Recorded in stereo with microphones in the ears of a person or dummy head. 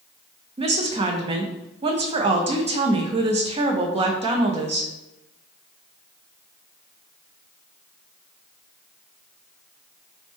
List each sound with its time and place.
0.6 s a woman speaking: 25° right (ahead or behind), 0.7 m